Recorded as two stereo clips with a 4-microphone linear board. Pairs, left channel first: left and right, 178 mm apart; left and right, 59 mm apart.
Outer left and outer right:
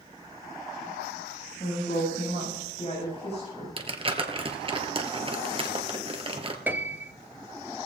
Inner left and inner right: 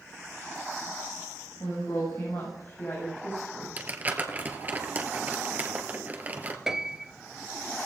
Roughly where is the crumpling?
Right.